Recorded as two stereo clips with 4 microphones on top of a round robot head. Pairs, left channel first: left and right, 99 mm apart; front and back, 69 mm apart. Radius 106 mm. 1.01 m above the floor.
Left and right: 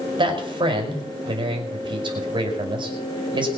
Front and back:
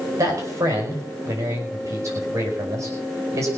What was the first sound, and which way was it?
A man speaking, 130° right.